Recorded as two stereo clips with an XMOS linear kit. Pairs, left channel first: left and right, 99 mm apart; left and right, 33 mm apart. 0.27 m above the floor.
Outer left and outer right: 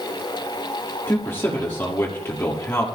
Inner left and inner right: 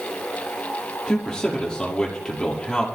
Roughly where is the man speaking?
Left.